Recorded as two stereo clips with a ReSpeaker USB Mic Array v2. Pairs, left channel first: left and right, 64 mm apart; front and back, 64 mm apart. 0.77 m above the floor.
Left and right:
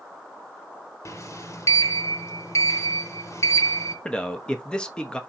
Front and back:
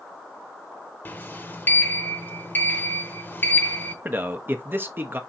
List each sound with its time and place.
1.1 s a sliding door: 55° left, 0.8 m
4.0 s a man speaking: 155° left, 0.7 m